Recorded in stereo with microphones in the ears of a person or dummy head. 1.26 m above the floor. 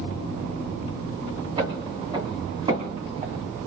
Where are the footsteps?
20° right (ahead or behind), 3 m; by 3.4 s 25° right (ahead or behind), 4 m.